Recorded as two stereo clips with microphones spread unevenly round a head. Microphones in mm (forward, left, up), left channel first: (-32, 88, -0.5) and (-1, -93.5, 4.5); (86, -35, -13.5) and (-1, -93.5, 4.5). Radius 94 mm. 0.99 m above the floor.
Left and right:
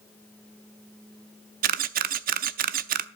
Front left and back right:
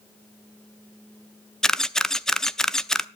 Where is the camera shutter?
60° right, 0.6 m.